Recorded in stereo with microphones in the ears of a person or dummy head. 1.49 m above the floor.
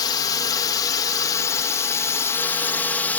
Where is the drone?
20° left (ahead or behind); by 3.2 s 5° left (ahead or behind).